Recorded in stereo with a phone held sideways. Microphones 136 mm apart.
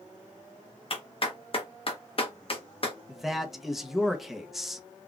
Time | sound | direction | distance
0.9 | a clap | 45° left (ahead or behind) | 1.1 m
3.1 | a man speaking | centre (ahead or behind) | 0.7 m